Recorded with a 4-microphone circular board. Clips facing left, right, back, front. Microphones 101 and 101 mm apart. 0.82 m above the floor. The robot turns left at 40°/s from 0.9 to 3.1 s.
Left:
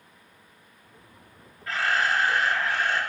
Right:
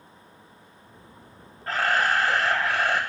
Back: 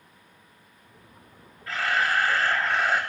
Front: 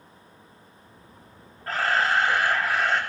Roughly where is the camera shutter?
Ahead right.